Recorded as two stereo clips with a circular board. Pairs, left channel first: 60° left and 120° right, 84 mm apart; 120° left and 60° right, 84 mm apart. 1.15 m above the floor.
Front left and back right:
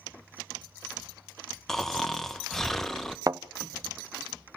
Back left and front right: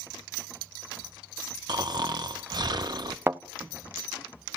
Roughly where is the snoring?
Ahead right.